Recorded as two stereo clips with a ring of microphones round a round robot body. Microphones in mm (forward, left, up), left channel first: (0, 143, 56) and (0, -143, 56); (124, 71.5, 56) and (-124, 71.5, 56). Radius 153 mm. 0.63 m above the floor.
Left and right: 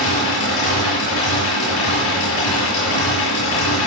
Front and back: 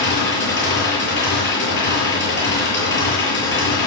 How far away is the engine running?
About 8.5 m.